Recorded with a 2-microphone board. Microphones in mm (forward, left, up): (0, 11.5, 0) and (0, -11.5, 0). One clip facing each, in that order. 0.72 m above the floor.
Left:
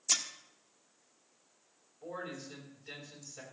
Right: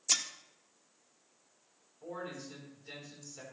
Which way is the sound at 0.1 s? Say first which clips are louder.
Right 1 dB; 20° right (ahead or behind).